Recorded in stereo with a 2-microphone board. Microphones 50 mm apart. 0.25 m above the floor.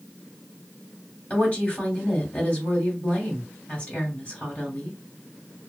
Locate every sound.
1.3 s a woman speaking: 30° left (ahead or behind), 1.7 m